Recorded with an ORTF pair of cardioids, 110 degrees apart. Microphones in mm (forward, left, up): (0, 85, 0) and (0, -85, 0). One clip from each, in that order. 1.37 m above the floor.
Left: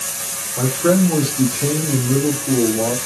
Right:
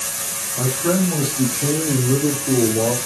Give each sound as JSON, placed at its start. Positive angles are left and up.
{"t": 0.6, "sound": "a man speaking", "azimuth_deg": 50, "distance_m": 1.6}